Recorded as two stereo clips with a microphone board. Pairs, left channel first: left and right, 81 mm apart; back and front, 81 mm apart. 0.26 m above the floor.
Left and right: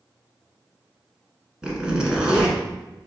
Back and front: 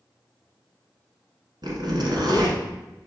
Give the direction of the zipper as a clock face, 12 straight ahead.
12 o'clock.